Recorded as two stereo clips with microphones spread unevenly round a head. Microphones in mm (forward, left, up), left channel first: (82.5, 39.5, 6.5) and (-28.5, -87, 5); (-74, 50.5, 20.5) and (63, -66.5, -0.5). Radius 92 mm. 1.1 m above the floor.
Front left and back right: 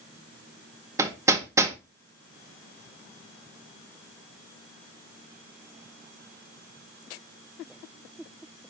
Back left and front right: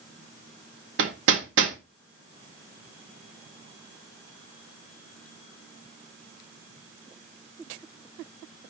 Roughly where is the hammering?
Ahead right.